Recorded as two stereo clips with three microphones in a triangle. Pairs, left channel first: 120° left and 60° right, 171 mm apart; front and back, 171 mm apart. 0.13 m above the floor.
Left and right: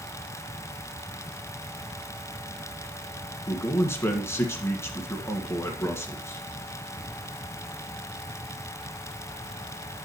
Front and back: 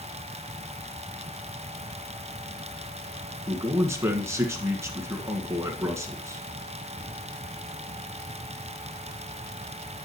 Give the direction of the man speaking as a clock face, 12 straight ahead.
7 o'clock.